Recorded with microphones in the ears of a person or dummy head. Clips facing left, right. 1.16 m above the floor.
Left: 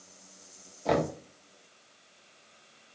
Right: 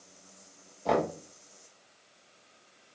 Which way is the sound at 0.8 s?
5° left (ahead or behind).